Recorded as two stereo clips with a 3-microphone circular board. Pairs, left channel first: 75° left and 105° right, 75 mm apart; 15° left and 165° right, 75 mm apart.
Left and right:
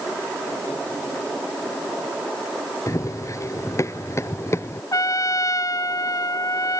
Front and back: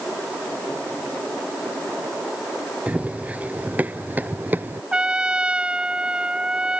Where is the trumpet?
115° left.